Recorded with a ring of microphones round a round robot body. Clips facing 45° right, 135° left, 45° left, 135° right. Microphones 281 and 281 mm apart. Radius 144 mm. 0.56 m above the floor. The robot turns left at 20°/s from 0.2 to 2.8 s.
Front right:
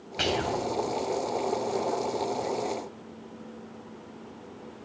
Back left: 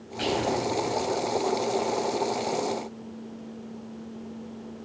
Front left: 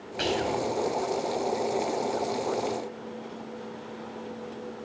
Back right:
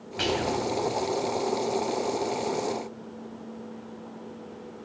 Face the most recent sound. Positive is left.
turn(degrees=-110)